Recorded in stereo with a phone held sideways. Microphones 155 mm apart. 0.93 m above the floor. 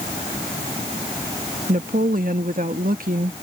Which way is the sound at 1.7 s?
65° right (ahead or behind).